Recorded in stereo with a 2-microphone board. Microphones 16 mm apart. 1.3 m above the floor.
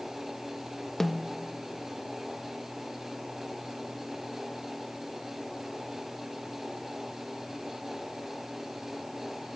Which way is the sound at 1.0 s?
25° left (ahead or behind).